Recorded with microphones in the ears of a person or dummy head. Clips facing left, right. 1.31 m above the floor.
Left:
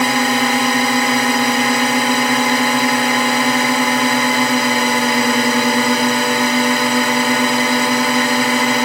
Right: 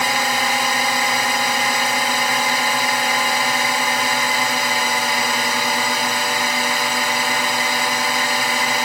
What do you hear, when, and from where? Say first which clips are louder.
0.0 s a drone: left 6 dB; 60° left (ahead or behind)